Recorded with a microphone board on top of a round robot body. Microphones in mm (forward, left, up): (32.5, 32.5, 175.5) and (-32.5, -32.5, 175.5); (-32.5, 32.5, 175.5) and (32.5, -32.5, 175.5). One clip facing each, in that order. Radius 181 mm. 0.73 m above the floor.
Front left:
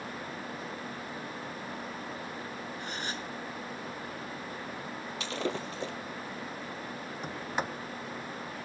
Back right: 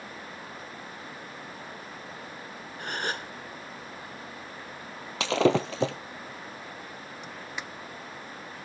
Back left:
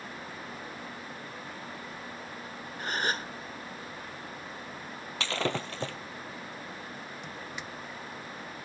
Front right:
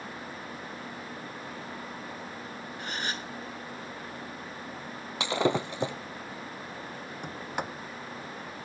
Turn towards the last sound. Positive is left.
turn(degrees=-5)